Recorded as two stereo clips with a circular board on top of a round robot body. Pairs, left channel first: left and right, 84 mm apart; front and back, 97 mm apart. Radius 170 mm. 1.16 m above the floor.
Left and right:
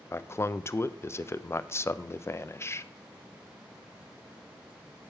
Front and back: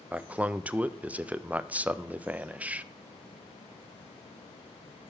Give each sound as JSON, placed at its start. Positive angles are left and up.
{"t": 0.1, "sound": "a man speaking", "azimuth_deg": 115, "distance_m": 0.5}